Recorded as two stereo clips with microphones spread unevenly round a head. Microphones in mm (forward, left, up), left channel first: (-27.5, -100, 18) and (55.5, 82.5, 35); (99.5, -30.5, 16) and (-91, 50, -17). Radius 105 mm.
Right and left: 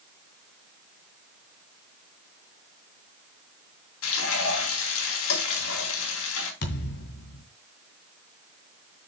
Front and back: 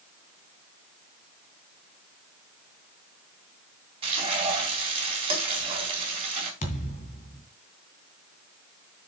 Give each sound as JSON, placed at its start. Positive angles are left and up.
{"t": 4.0, "sound": "frying", "azimuth_deg": -135, "distance_m": 3.5}
{"t": 6.6, "sound": "a thud", "azimuth_deg": -75, "distance_m": 2.5}